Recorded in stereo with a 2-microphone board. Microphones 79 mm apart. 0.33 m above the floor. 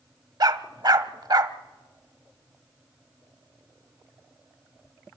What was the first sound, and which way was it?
A dog barking, 60° right (ahead or behind).